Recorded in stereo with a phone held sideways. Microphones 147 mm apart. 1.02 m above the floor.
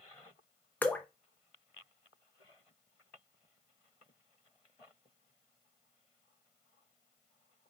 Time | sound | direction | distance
0.8 | dripping | 10° left (ahead or behind) | 0.5 m